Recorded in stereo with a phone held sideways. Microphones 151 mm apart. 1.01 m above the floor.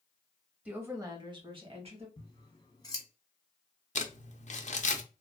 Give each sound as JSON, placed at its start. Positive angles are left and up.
{"t": 0.7, "sound": "a woman speaking", "side_deg": -10, "distance_m": 0.9}
{"t": 2.2, "sound": "scissors", "side_deg": 25, "distance_m": 0.9}
{"t": 4.0, "sound": "crumpling", "side_deg": 50, "distance_m": 0.5}